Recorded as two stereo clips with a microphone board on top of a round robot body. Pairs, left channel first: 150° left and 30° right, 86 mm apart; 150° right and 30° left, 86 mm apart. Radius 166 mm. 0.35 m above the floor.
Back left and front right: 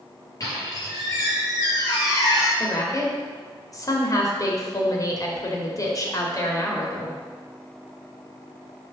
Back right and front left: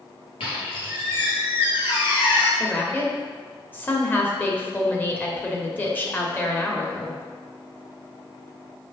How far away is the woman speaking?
About 1.7 m.